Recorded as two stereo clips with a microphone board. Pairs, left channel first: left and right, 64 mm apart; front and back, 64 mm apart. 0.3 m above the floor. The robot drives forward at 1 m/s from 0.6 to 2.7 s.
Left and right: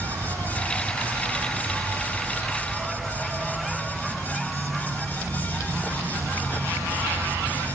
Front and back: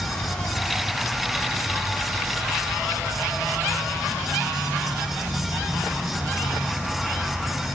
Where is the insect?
70° right, 3.5 m; by 7.8 s 115° right, 3.5 m.